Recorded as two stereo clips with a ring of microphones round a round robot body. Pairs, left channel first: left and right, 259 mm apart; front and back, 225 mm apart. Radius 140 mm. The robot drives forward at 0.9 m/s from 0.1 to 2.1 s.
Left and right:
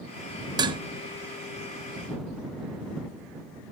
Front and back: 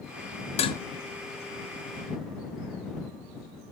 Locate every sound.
0.6 s dishes clattering: 30° right, 0.6 m; by 0.8 s 65° right, 0.5 m